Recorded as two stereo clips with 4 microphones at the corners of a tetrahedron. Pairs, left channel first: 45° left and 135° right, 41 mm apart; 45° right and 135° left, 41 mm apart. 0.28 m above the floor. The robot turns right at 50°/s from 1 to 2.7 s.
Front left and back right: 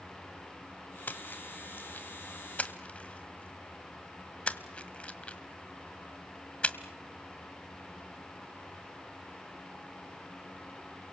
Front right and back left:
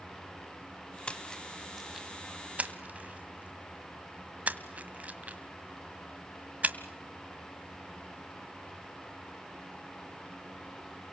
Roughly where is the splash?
Ahead.